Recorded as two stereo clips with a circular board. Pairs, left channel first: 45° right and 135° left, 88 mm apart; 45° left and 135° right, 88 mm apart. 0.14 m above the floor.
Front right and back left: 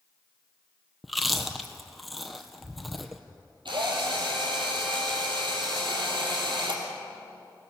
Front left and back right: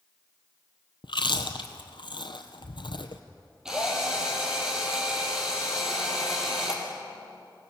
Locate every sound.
1.0 s chewing: 45° left, 1.4 m
3.6 s a drill: 145° left, 4 m